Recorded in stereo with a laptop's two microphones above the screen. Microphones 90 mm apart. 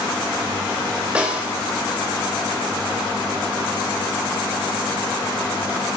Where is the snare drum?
15° right (ahead or behind), 1.5 m.